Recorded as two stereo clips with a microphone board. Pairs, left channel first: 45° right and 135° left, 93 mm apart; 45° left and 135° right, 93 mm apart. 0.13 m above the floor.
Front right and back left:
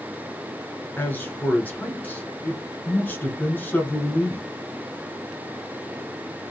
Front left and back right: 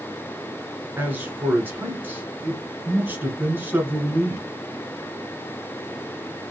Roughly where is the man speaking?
Right.